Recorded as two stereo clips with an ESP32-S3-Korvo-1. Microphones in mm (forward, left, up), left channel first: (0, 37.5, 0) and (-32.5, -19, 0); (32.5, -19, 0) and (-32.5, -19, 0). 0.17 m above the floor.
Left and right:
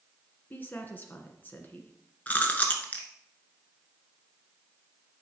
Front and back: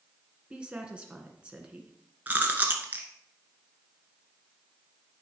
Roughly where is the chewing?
Behind left.